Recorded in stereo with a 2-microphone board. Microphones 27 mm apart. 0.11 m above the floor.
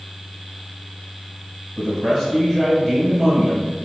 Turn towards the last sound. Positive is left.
turn(degrees=10)  # may be behind; listen again after turning